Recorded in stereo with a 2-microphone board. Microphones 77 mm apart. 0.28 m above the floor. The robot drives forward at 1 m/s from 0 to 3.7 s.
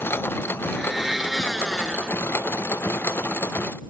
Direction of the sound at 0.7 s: 5° right (ahead or behind).